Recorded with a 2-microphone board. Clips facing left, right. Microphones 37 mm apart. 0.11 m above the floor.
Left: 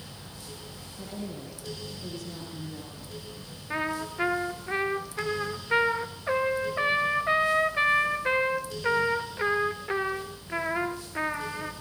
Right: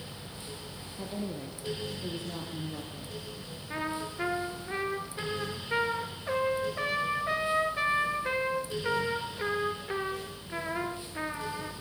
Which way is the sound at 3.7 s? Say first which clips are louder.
Left 4 dB; 25° left (ahead or behind).